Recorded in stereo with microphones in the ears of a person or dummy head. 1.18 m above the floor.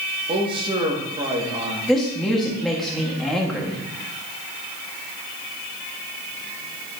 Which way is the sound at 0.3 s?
25° right (ahead or behind).